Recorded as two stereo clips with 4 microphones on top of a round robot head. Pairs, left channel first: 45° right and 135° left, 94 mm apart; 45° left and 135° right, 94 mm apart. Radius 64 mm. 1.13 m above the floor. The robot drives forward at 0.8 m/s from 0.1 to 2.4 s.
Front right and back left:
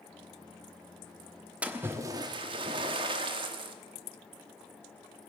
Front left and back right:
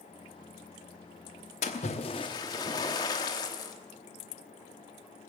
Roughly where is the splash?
Ahead left.